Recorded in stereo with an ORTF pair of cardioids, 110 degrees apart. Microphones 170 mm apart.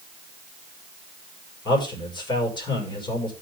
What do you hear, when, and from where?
1.6 s a man speaking: 25° left, 6.5 m